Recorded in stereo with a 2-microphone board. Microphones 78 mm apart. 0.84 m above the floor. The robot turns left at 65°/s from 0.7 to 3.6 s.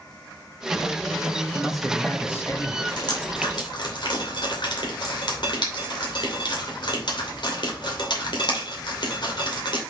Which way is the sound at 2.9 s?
60° left (ahead or behind).